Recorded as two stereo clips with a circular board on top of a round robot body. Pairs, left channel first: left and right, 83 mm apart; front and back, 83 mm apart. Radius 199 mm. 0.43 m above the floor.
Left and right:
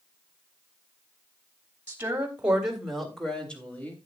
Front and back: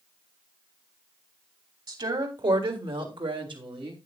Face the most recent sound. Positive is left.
turn(degrees=160)